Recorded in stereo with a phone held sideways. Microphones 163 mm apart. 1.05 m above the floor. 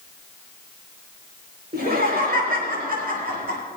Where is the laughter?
80° right, 4.5 m; by 3.6 s 70° right (ahead or behind), 5 m.